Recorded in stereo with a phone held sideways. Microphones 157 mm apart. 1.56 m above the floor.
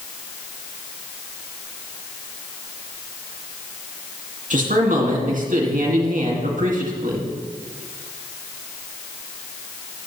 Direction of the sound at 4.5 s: 55° right (ahead or behind).